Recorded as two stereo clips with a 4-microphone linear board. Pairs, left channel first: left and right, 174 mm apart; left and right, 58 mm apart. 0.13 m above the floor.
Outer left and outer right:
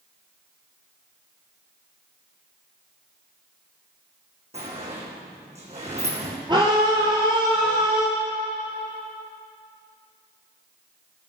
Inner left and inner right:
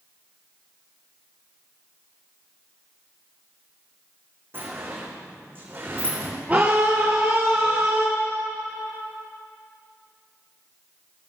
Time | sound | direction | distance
4.5 | a sliding door | 40° right (ahead or behind) | 4.5 m
6.5 | a scream | 25° right (ahead or behind) | 2.5 m